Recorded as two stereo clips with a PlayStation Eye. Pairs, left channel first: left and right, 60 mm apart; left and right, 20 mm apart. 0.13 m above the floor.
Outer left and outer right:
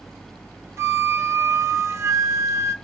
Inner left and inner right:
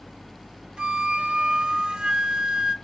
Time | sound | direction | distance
0.8 | a flute | 55° right (ahead or behind) | 0.8 m